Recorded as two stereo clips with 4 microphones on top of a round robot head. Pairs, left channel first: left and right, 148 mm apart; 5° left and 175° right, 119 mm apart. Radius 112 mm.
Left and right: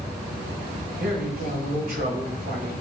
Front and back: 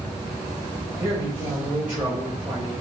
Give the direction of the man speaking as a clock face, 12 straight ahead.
3 o'clock.